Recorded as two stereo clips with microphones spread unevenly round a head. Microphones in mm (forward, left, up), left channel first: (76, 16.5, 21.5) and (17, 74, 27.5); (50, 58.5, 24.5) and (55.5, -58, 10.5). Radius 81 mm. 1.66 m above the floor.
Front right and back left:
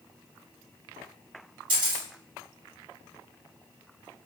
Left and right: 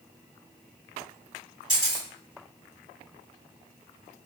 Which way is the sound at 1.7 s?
175° right.